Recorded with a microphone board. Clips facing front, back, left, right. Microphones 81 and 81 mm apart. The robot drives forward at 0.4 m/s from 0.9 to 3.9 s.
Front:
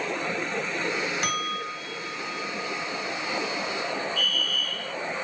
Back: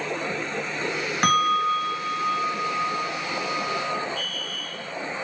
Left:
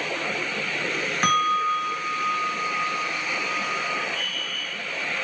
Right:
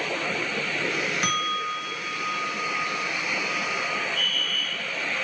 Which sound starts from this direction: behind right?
A fire alarm, at 4.2 s.